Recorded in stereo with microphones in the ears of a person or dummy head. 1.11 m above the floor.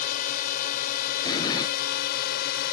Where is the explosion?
25° left (ahead or behind).